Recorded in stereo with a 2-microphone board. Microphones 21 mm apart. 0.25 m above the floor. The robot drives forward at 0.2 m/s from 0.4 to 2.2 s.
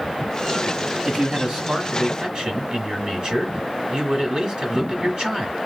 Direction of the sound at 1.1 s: 50° right (ahead or behind).